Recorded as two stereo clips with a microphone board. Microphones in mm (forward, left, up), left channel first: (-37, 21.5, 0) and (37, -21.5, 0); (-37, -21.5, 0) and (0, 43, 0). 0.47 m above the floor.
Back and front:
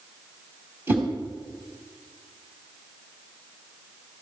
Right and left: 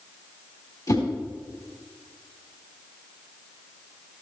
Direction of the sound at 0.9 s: 90° right.